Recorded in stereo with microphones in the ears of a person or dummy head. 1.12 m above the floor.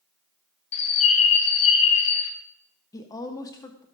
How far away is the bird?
About 2 m.